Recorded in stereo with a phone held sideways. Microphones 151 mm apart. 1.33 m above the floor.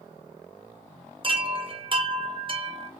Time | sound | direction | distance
1.2 | a chime | 35° right (ahead or behind) | 0.6 m